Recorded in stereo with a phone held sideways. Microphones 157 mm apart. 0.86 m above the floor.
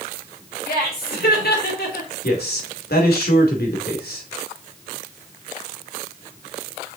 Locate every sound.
0.7 s laughter: 80° left, 4 m; by 2.1 s 75° left (ahead or behind), 2.5 m
2.2 s a man speaking: 75° left (ahead or behind), 2.5 m